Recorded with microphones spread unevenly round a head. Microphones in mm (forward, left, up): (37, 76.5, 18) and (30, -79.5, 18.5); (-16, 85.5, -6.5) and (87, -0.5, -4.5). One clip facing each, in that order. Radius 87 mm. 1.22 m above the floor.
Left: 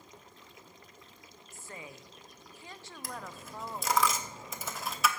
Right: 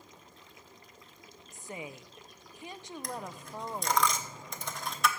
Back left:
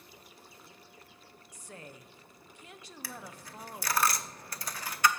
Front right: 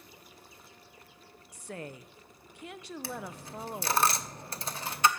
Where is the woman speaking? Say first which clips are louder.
Right 5 dB, front right 7 dB; 20° right, 0.6 m.